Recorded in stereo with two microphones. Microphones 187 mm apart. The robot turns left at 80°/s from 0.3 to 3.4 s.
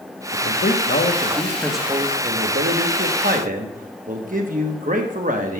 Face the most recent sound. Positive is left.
turn(degrees=-135)